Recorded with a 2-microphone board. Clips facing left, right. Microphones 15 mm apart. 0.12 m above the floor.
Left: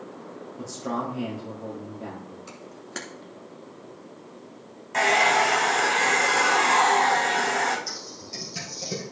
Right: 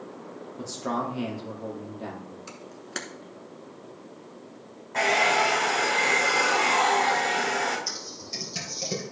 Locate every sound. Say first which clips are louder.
0.6 s a man speaking: right 1 dB; 30° right (ahead or behind), 3 m
2.5 s a camera shutter: right 1 dB; 15° right (ahead or behind), 1.1 m
4.9 s a hair dryer: left 2 dB; 45° left (ahead or behind), 2.5 m
7.9 s typing on a keyboard: right 1 dB; 20° right (ahead or behind), 2.5 m